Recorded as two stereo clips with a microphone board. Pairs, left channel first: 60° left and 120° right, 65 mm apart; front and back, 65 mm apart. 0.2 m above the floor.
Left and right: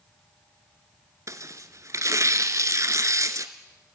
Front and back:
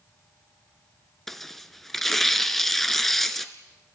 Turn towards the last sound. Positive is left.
turn(degrees=-85)